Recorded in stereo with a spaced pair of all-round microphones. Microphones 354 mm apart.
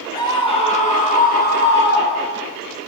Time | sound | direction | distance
0.1 | a scream | 10° left (ahead or behind) | 3.5 m